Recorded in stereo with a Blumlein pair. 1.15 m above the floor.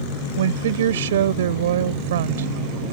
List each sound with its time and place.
0.4 s a woman speaking: 60° right